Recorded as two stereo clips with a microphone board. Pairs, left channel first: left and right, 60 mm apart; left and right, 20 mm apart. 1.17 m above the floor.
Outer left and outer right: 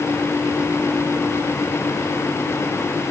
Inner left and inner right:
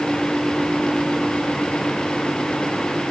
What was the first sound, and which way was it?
Only background noise.